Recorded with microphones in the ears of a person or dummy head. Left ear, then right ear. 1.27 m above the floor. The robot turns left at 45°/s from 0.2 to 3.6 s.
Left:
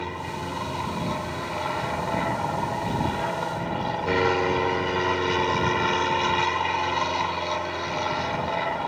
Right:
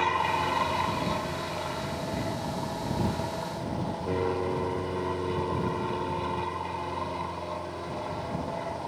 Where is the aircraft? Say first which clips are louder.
Right 6 dB; 135° right; by 8.9 s 70° left.